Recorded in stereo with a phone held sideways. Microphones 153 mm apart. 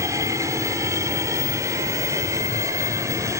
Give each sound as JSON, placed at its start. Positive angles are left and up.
{"t": 0.0, "sound": "an aircraft", "side_deg": -20}